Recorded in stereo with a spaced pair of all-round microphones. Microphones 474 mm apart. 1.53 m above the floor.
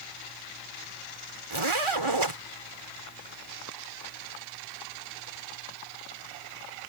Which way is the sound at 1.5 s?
85° right.